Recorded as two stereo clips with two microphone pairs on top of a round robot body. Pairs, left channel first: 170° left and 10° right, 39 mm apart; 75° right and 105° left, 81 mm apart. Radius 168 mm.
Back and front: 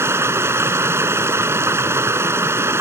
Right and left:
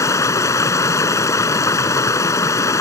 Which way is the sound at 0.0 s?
15° right.